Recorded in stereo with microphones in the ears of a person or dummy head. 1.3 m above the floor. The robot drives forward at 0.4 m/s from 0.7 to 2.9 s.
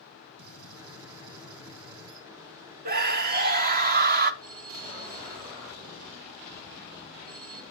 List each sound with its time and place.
0.4 s a gunshot: 80° right, 2.5 m; by 2.3 s 85° right, 2.5 m
2.9 s a scream: 45° right (ahead or behind), 0.8 m
4.4 s a phone ringing: 55° right (ahead or behind), 0.9 m